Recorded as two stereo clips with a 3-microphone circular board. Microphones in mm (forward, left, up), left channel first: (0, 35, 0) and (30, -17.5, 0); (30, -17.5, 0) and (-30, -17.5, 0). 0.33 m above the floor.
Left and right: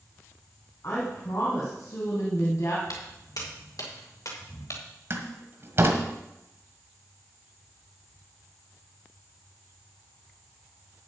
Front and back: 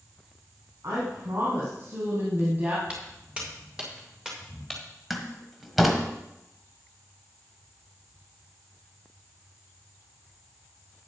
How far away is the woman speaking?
About 3 m.